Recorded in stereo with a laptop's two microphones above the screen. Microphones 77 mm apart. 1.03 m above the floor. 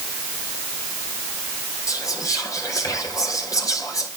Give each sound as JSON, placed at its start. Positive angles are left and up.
{"t": 1.9, "sound": "whispering", "side_deg": 50, "distance_m": 5.0}